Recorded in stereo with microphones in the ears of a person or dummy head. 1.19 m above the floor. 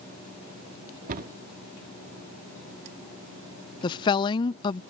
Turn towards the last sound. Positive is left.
turn(degrees=25)  # may be behind; listen again after turning